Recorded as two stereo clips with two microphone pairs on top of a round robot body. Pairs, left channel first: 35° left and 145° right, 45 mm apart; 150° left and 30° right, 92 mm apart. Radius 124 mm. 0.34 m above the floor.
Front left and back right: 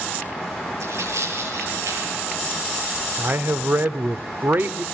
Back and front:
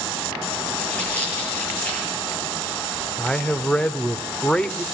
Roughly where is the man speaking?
Behind right.